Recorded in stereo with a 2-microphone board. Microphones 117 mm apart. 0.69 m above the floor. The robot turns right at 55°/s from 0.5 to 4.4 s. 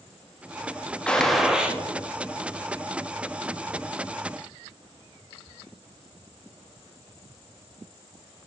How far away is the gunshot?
About 0.7 m.